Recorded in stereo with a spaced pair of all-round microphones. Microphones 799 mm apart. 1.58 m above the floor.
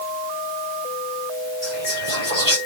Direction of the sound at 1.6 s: 35° right (ahead or behind).